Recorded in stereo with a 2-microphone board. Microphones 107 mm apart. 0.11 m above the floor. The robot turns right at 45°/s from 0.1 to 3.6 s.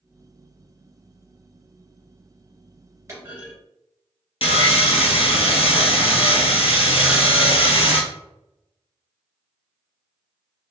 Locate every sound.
3.1 s a clunk: 25° right (ahead or behind), 1.9 m; by 3.5 s 20° right (ahead or behind), 1.9 m
4.4 s sawing: 65° left (ahead or behind), 0.6 m